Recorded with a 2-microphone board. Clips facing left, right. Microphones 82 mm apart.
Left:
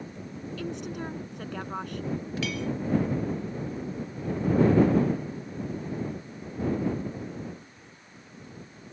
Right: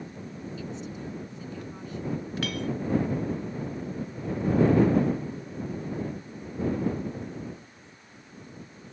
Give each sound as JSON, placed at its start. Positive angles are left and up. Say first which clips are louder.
{"t": 0.6, "sound": "a woman speaking", "louder": "left 5 dB", "side_deg": 65}
{"t": 2.4, "sound": "a clink", "louder": "right 1 dB", "side_deg": -50}